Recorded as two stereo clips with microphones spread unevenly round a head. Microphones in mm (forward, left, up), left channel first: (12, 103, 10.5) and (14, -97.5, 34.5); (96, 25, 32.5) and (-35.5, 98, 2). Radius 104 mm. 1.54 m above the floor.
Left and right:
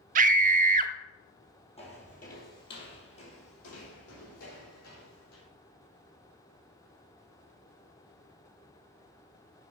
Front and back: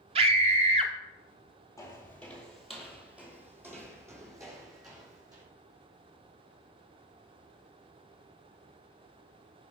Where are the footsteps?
30° left, 2.5 m; by 5.4 s 85° left, 5 m.